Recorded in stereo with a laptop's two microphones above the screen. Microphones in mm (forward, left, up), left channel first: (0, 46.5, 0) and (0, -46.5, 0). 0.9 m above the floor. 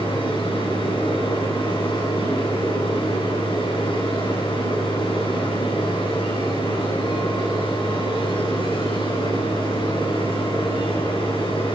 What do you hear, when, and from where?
0.0 s a machine running: 70° left (ahead or behind), 9.5 m